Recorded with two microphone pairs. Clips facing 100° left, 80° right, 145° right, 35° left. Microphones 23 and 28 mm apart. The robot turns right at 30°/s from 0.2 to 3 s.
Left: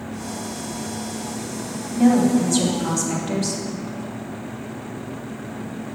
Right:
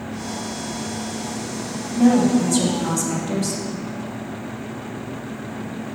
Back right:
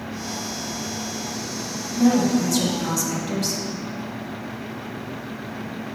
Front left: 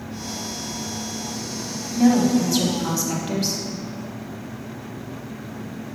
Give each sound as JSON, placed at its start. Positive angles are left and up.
{"t": 1.9, "sound": "a woman speaking", "azimuth_deg": 15, "distance_m": 1.0}